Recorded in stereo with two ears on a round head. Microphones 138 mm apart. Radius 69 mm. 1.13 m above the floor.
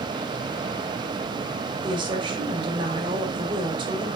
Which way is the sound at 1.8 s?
30° right (ahead or behind).